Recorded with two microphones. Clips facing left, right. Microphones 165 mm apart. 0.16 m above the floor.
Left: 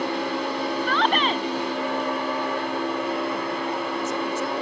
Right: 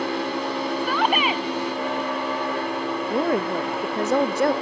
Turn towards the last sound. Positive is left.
turn(degrees=-70)  # may be behind; listen again after turning